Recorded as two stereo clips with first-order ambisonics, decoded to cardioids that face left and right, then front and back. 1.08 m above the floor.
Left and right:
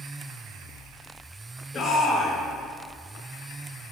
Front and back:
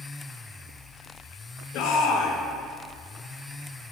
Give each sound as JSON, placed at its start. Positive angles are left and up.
{"t": 1.7, "sound": "a shout", "azimuth_deg": 30, "distance_m": 1.7}